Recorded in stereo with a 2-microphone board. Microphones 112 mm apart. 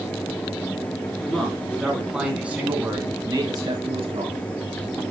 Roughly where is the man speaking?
Centre.